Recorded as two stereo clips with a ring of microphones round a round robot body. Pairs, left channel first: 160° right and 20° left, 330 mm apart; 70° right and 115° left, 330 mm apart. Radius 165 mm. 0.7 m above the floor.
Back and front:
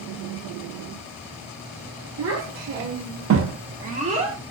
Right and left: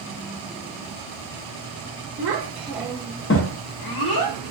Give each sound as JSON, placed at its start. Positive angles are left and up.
{"t": 2.2, "sound": "a child speaking", "azimuth_deg": 65, "distance_m": 0.7}